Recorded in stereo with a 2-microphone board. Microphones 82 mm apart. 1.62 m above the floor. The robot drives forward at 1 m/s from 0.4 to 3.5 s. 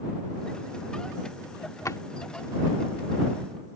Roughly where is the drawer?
Left.